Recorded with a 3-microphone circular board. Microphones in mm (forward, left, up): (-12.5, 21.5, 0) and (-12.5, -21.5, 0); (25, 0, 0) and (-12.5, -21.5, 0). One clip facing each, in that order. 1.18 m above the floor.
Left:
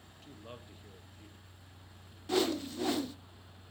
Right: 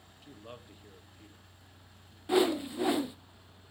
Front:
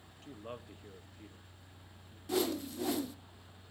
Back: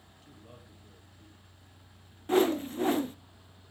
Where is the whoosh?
155° right, 0.7 m.